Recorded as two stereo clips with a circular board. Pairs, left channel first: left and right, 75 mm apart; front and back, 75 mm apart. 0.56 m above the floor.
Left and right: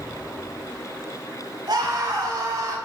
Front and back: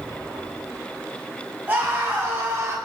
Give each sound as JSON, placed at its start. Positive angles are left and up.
{"t": 1.7, "sound": "a scream", "azimuth_deg": -120, "distance_m": 5.5}